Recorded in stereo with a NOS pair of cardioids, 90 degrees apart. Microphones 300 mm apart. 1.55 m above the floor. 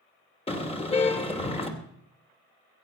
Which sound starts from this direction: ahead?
A car horn, at 0.5 s.